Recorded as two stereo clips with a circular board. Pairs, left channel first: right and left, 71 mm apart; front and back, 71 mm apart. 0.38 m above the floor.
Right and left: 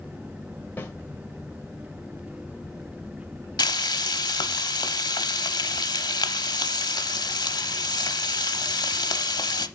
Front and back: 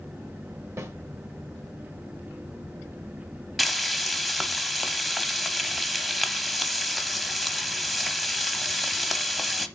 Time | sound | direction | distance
0.8 | a snare drum | 145° right | 1.2 m
3.6 | frying | 90° right | 0.7 m